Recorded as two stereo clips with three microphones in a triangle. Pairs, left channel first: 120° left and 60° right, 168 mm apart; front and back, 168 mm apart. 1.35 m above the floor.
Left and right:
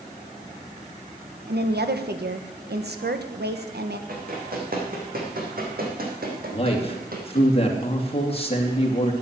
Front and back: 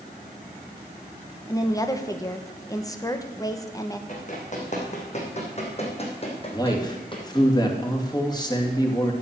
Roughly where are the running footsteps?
Ahead right.